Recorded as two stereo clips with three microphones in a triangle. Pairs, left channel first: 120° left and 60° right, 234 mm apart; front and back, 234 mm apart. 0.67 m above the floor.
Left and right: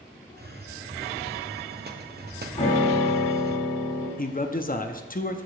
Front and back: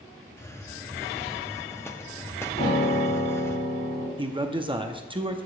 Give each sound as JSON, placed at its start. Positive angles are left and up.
{"t": 0.4, "sound": "a hiss", "azimuth_deg": -75, "distance_m": 0.6}
{"t": 2.6, "sound": "a piano", "azimuth_deg": 65, "distance_m": 3.0}
{"t": 4.2, "sound": "a man speaking", "azimuth_deg": 130, "distance_m": 0.6}